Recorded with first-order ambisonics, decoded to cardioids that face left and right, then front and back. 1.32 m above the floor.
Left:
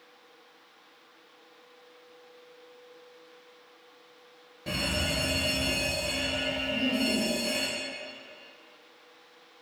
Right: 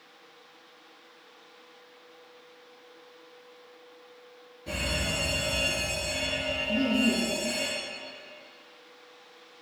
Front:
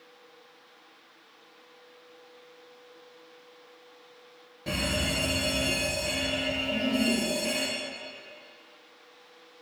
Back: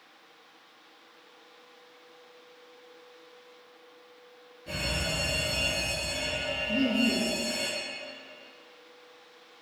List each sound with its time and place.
4.7 s a fire alarm: 40° left, 1.9 m
6.7 s laughter: 155° right, 1.9 m